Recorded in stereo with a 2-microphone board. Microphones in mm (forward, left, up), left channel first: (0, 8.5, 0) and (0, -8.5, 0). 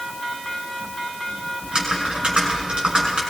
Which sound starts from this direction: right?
Typing on a keyboard, at 1.6 s.